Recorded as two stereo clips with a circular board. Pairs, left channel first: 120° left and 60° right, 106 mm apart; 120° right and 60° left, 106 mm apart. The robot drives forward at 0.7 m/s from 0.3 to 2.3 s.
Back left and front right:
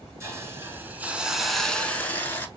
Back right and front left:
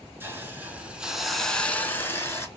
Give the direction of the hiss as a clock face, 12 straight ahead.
12 o'clock.